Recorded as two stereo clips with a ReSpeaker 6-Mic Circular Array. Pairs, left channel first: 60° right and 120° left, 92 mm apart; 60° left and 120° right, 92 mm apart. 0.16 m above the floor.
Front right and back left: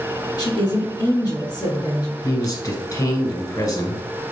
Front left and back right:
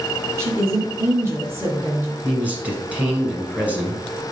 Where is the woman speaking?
65° right, 1.7 m.